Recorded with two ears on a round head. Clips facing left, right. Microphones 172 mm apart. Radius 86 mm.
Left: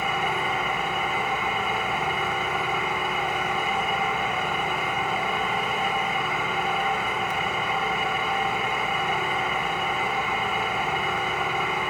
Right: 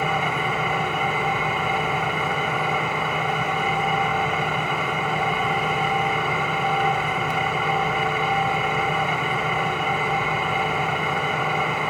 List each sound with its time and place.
0.0 s an engine running: 65° right (ahead or behind), 5.5 m